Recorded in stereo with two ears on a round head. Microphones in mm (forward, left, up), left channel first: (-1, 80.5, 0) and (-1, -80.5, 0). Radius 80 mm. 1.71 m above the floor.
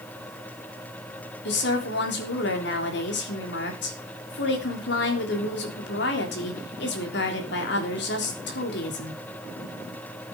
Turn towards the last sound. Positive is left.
turn(degrees=65)  # may be behind; listen again after turning